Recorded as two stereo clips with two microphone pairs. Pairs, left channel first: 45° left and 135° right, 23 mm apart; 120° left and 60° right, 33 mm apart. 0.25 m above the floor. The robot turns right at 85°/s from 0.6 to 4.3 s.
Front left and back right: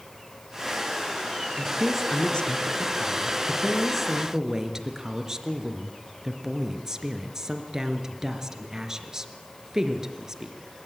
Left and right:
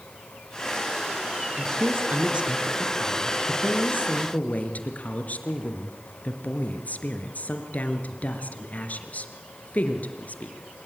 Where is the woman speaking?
70° right, 3.5 m; by 10.5 s 160° left, 3.5 m.